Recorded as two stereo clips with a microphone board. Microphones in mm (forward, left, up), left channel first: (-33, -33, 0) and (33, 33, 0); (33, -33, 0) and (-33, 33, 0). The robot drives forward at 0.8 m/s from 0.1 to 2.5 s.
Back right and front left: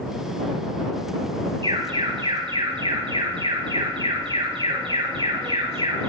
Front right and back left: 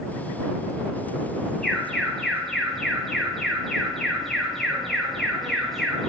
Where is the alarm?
40° left, 7 m.